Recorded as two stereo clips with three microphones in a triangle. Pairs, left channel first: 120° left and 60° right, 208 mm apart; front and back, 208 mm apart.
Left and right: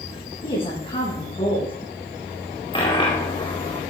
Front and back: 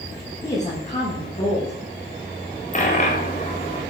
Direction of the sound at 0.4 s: 60° left.